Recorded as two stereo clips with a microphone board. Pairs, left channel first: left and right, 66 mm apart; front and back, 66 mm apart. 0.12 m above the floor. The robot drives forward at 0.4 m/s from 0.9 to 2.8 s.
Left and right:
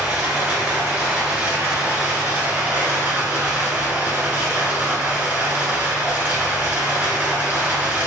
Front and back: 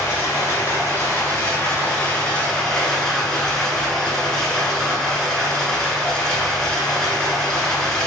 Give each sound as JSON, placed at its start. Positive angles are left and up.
{"t": 0.0, "sound": "running water", "azimuth_deg": -25, "distance_m": 1.4}